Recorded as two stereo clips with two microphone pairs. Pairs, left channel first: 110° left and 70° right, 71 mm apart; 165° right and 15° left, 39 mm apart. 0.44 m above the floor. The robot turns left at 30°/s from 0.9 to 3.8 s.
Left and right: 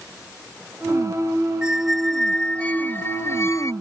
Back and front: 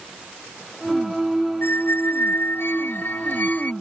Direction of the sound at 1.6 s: 150° right.